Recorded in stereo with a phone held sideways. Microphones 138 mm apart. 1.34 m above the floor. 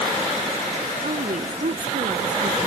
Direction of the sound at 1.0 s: 70° right (ahead or behind).